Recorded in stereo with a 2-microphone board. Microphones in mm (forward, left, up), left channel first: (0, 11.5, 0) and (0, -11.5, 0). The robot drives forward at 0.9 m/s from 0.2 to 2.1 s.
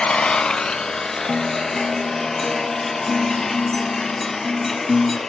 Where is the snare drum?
No snare drum in this recording.